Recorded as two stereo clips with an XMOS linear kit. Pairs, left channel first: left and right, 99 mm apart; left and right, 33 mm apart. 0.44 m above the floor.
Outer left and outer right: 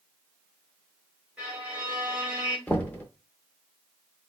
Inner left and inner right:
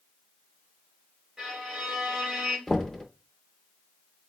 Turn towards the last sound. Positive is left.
turn(degrees=15)  # may be behind; listen again after turning